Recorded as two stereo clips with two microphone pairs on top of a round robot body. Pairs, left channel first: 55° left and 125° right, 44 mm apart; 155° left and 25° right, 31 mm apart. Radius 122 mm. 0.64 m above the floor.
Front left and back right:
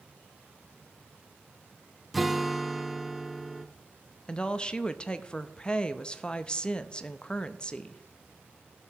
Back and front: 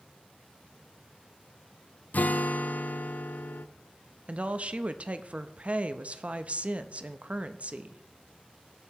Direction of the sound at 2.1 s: 145° left.